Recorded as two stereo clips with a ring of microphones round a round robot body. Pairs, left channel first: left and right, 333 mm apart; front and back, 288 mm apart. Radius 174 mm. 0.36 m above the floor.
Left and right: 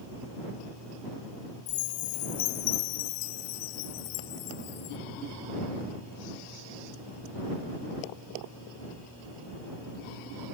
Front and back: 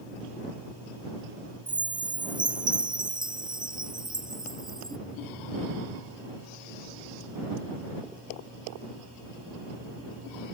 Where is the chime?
105° left.